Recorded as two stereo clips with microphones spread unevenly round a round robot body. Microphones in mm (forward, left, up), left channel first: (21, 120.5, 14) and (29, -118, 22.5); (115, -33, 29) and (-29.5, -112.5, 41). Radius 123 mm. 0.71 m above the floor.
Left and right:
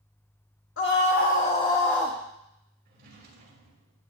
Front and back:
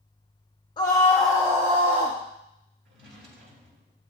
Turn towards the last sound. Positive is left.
turn(degrees=-145)